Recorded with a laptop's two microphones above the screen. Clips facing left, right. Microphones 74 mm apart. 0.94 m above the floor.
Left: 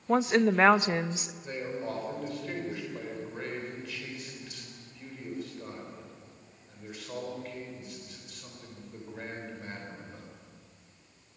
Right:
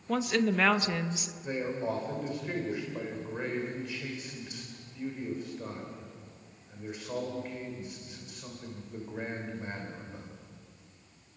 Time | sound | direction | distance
0.1 | a woman speaking | 30° left (ahead or behind) | 0.7 m
1.4 | a man speaking | 15° right (ahead or behind) | 3.5 m